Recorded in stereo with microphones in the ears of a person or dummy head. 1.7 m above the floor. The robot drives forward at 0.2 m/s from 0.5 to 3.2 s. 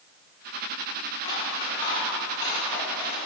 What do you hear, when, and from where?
1.2 s scissors: 30° left (ahead or behind), 1.3 m; by 3.3 s 25° left (ahead or behind), 1.7 m